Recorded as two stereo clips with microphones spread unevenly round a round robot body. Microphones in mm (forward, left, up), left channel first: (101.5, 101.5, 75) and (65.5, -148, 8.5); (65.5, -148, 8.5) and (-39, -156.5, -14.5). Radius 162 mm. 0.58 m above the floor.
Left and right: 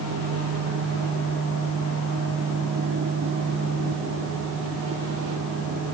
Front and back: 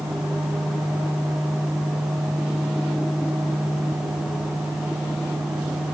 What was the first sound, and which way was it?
Only background noise.